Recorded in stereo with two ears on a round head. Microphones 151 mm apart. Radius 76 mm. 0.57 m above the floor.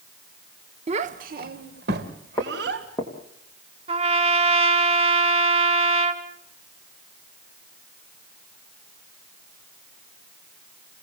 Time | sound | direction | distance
0.9 | a child speaking | 35° right (ahead or behind) | 0.9 m
2.4 | footsteps | 15° left (ahead or behind) | 4 m
3.9 | a trumpet | 35° right (ahead or behind) | 1.5 m